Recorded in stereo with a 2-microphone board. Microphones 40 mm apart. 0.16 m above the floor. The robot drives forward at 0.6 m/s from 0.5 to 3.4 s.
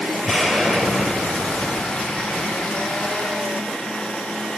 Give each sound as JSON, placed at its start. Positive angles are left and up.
{"t": 0.2, "sound": "an explosion", "side_deg": -10, "distance_m": 2.5}